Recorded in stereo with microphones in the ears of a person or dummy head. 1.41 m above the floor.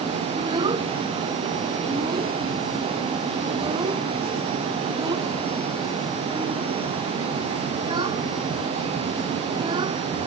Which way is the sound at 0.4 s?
25° right (ahead or behind).